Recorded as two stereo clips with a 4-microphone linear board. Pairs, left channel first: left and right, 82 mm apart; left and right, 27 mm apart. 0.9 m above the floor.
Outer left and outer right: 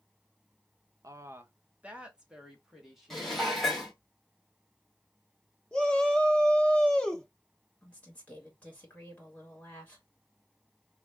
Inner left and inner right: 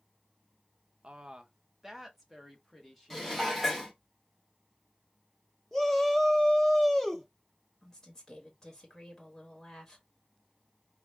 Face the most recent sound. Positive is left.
turn(degrees=20)  # may be behind; listen again after turning